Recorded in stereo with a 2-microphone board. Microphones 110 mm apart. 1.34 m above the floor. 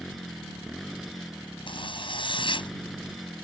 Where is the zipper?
50° left (ahead or behind).